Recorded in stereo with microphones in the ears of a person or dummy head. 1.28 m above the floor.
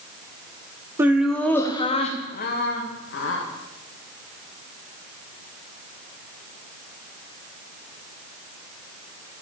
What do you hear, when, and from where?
1.0 s laughter: 20° right (ahead or behind), 0.9 m; by 3.4 s 65° left (ahead or behind), 1.5 m